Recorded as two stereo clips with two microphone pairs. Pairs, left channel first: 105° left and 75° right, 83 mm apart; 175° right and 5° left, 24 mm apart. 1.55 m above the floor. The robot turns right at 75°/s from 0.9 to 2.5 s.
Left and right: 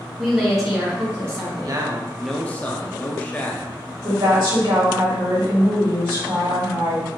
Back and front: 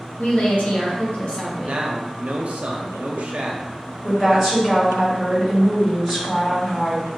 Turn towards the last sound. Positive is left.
turn(degrees=-65)